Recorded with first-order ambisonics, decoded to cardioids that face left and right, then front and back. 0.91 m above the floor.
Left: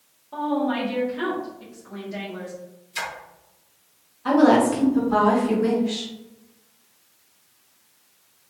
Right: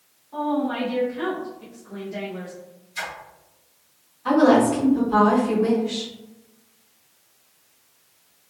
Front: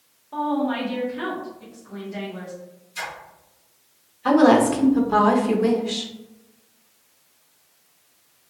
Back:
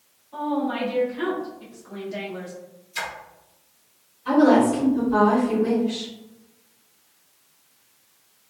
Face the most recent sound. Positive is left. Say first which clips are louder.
# even, front 2 dB
turn(degrees=10)